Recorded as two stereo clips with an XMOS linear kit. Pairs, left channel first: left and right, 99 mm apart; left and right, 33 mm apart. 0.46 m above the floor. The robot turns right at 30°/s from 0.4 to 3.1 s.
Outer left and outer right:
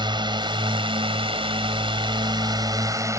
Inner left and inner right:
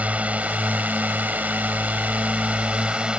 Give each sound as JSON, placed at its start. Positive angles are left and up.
{"t": 0.0, "sound": "a drone", "azimuth_deg": -115}